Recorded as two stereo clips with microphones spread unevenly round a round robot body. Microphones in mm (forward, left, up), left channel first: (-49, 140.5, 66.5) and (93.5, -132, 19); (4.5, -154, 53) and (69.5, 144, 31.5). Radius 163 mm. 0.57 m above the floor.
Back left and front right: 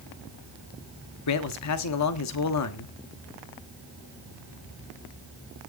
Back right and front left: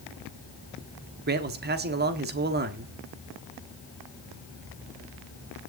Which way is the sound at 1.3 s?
115° left.